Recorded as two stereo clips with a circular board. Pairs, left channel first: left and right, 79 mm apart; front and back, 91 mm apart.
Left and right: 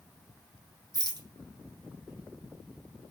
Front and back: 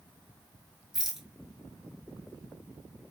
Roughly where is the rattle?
Right.